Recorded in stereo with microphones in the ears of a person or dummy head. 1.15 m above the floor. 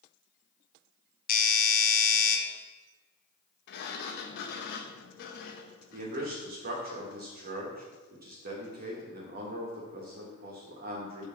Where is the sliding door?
60° left (ahead or behind), 0.6 m.